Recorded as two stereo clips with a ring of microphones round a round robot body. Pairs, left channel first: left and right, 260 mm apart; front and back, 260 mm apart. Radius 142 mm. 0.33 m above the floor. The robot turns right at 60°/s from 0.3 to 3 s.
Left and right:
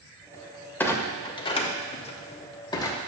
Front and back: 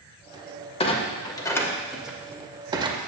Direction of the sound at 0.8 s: 20° left.